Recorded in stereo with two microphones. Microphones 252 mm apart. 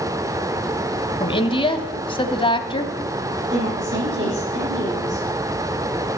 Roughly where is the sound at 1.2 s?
Centre.